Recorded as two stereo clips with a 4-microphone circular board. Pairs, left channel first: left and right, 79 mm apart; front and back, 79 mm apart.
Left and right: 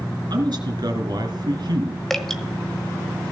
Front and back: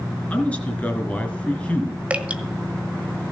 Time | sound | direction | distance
0.3 | a man speaking | 70° right | 3 m
2.1 | dripping | 165° left | 1.4 m